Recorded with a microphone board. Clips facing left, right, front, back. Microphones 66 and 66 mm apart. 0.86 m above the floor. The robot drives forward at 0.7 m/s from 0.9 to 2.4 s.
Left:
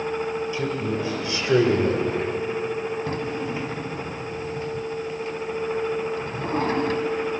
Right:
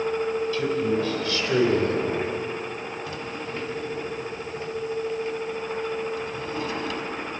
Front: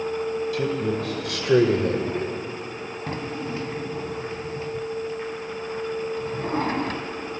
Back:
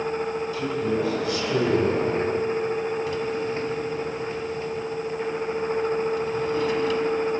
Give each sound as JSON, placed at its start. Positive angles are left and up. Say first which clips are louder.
{"t": 0.5, "sound": "a man speaking", "louder": "right 2 dB, even", "azimuth_deg": 20, "distance_m": 3.5}
{"t": 3.1, "sound": "a drawer", "louder": "left 5 dB, back 4 dB", "azimuth_deg": 45, "distance_m": 1.6}